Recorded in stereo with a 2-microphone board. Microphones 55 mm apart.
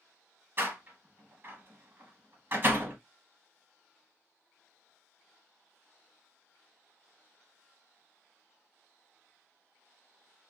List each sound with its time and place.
0.6 s a door slam: 45° right (ahead or behind), 1.1 m